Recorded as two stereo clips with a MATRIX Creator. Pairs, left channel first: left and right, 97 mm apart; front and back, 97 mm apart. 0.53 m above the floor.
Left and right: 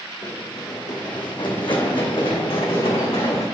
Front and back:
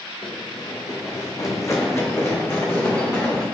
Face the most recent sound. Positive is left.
turn(degrees=70)